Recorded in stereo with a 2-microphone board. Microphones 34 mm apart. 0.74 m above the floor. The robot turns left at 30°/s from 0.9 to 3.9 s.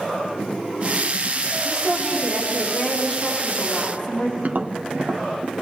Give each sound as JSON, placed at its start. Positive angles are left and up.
{"t": 1.6, "sound": "a woman speaking", "azimuth_deg": 180, "distance_m": 7.5}
{"t": 4.4, "sound": "tapping", "side_deg": -55, "distance_m": 0.9}